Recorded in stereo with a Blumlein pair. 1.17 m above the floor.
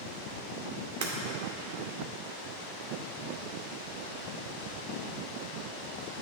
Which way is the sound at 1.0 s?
55° right.